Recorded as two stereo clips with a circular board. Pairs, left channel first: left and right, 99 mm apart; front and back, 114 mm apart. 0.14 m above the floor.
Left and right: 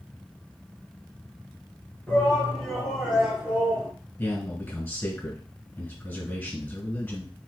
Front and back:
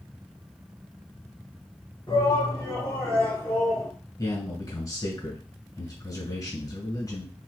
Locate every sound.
2.1 s a shout: 15° left, 1.8 m; by 3.9 s 90° right, 1.4 m
4.2 s a man speaking: 30° left, 2 m